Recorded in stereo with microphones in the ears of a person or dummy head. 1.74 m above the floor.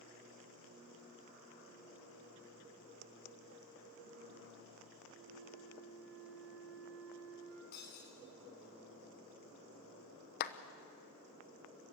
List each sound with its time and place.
5.1 s a flute: 80° right, 5.5 m
7.7 s breaking glass: 60° left (ahead or behind), 4.5 m
10.4 s a clap: 55° left (ahead or behind), 1.0 m